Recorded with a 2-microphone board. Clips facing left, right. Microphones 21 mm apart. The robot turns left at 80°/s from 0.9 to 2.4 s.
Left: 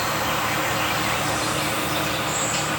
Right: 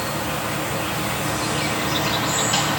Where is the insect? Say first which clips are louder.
Left 2 dB; 55° left, 1.1 m; by 2.8 s 65° right, 1.1 m.